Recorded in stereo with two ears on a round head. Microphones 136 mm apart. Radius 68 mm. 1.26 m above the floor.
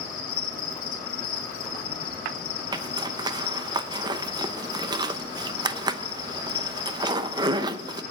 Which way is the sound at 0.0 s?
65° left (ahead or behind).